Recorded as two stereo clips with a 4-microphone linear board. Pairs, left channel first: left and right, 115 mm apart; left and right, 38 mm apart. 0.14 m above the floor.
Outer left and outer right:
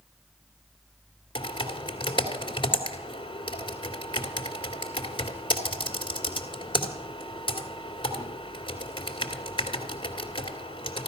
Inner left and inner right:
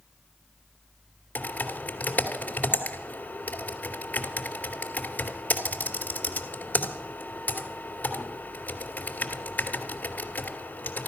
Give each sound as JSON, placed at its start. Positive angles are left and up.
{"t": 1.4, "sound": "typing on a keyboard", "side_deg": 45, "distance_m": 2.5}